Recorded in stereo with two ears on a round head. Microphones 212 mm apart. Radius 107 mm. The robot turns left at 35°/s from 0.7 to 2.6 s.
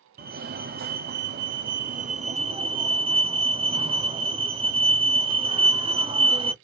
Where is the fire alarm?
80° right, 0.9 m; by 6.5 s 145° right, 0.9 m.